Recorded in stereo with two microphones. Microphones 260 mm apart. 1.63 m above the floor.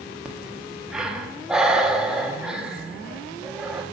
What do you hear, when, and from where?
0.2 s breathing: 5° right (ahead or behind), 1.1 m